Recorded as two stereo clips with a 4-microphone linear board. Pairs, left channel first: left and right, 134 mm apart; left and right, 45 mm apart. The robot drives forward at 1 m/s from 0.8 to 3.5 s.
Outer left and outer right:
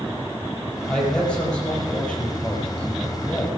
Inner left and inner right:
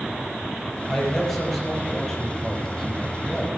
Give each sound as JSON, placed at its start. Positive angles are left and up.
{"t": 0.9, "sound": "a man speaking", "side_deg": 5, "distance_m": 5.5}